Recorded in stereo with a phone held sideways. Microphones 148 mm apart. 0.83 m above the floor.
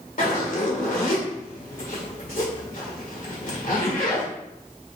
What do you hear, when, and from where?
0.2 s a zipper: 60° left (ahead or behind), 1.9 m